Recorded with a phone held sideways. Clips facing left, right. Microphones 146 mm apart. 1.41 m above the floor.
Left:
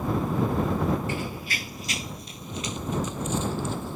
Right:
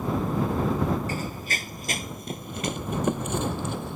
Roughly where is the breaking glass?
No breaking glass in this recording.